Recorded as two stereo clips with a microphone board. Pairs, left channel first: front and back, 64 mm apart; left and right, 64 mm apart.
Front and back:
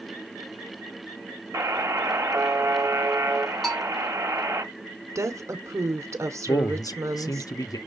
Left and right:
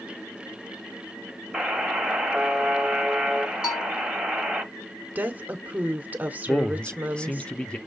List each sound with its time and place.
1.5 s a buzzer: 175° right, 1.4 m
3.6 s a bell: 90° left, 2.5 m
5.2 s a woman speaking: 150° right, 1.0 m
6.5 s a man speaking: 15° left, 0.7 m